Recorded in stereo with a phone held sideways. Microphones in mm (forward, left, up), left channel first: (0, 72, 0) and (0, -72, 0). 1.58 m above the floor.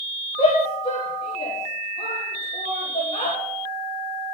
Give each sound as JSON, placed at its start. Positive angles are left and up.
{"t": 0.4, "sound": "a shout", "side_deg": 40, "distance_m": 3.0}